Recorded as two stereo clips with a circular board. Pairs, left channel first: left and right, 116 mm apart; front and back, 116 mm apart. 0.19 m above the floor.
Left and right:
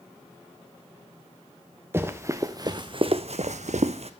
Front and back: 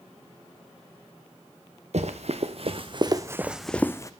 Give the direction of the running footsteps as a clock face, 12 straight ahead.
5 o'clock.